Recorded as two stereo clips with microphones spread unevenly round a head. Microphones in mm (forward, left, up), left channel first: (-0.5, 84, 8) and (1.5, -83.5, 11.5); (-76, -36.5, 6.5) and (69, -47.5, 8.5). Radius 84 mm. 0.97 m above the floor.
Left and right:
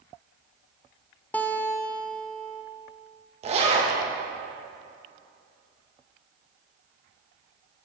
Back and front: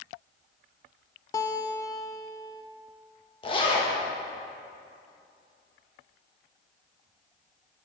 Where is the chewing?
I don't hear chewing.